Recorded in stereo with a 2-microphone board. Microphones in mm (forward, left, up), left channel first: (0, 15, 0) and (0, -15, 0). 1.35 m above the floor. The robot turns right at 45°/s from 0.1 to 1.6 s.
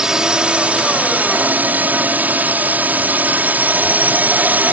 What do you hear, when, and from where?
0.0 s a drone: 155° right; by 4.7 s 90° right